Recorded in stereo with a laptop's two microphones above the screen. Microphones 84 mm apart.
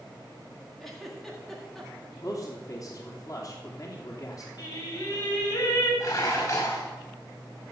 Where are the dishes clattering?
45° left (ahead or behind), 5 m.